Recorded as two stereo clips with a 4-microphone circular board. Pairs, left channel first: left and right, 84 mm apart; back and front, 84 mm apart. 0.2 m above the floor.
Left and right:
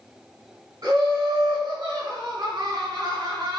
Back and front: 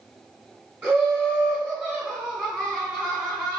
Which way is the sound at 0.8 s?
75° right.